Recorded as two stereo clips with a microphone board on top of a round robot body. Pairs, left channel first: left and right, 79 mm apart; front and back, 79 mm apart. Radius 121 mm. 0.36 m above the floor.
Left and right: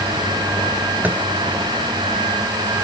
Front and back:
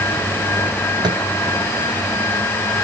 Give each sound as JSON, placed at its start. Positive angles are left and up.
{"t": 1.0, "sound": "tapping", "azimuth_deg": -160}